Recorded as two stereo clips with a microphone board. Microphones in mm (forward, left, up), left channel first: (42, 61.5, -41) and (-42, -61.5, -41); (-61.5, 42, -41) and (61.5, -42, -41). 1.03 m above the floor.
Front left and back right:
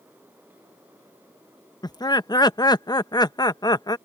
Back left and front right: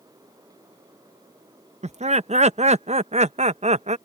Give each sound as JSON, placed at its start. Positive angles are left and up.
{"t": 1.8, "sound": "laughter", "azimuth_deg": -5}